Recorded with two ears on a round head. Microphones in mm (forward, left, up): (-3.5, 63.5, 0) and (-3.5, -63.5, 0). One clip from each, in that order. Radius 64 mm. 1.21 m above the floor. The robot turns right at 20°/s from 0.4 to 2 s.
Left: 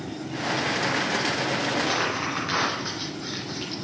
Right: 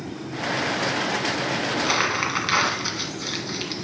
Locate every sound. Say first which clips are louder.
1.7 s crumpling: right 3 dB; 60° right (ahead or behind), 1.9 m; by 3.8 s 55° right (ahead or behind), 1.9 m